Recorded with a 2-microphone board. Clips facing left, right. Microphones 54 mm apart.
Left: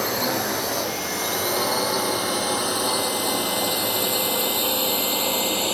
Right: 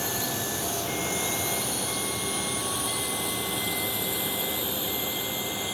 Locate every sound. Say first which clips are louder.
0.0 s a drone: left 7 dB; 60° left (ahead or behind); by 5.7 s 70° left (ahead or behind)